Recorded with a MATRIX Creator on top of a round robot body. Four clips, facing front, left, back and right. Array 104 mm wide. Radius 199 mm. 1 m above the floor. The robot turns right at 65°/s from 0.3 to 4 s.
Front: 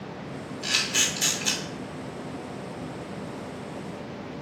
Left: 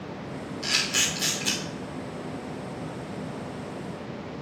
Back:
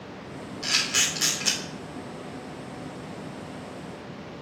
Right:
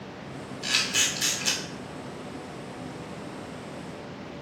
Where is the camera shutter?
140° left, 1.5 m; by 1.6 s 155° right, 1.5 m.